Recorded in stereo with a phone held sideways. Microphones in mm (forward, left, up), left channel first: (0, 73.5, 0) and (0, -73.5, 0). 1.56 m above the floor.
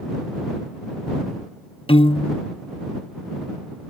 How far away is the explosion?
No explosion in this recording.